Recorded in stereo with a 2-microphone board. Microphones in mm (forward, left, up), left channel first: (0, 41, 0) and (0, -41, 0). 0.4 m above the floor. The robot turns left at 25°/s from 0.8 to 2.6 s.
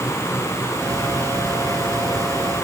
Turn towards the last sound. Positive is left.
No sound to turn to.